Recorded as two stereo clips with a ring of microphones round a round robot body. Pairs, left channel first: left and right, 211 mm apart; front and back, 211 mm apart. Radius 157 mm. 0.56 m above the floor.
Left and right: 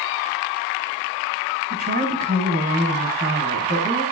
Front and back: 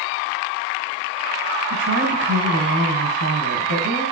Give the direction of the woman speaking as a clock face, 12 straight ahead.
5 o'clock.